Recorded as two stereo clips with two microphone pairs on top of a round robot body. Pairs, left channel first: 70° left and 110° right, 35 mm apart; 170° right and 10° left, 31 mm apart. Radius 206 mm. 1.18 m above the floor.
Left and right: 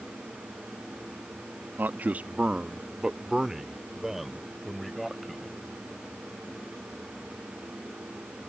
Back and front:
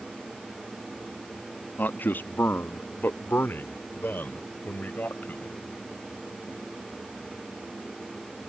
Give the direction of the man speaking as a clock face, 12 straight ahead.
5 o'clock.